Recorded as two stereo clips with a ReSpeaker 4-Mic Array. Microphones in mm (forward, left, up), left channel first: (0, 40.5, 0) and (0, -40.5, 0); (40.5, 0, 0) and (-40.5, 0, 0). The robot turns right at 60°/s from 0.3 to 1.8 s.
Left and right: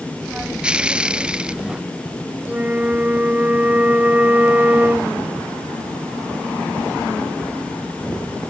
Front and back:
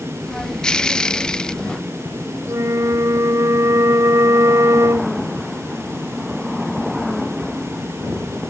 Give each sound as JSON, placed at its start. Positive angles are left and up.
{"t": 2.5, "sound": "a flute", "azimuth_deg": -150}